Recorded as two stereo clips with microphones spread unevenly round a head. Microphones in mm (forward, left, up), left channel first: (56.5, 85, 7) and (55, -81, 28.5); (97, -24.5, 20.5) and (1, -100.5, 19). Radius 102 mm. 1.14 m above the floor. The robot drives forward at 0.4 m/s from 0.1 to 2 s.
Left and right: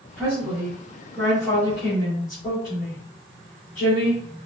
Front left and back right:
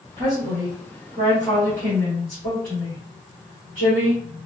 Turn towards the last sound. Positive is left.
turn(degrees=175)